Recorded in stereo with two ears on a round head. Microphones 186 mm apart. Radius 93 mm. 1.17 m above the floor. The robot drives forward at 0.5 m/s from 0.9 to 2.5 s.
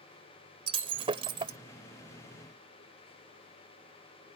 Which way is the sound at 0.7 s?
30° right (ahead or behind).